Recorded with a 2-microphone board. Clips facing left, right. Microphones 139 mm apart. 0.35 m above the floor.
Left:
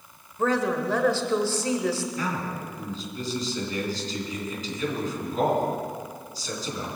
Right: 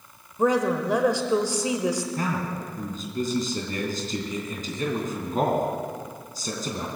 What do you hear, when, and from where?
0.4 s a woman speaking: 15° right (ahead or behind), 1.1 m
2.2 s a man speaking: 50° right (ahead or behind), 3 m